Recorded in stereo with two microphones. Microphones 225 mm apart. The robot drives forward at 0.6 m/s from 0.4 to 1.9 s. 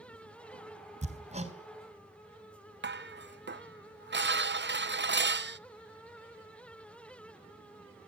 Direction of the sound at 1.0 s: 30° right (ahead or behind).